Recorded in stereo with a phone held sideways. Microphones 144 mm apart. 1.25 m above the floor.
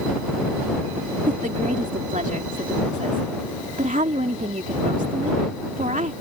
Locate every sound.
1.3 s a woman speaking: 55° right (ahead or behind)